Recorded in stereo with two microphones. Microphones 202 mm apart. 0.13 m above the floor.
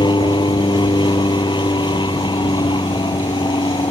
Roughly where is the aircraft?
Left.